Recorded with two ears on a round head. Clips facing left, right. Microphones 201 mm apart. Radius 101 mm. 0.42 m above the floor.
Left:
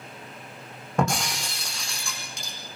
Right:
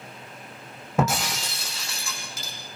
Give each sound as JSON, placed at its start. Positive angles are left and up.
{"t": 1.0, "sound": "breaking glass", "side_deg": -5, "distance_m": 6.0}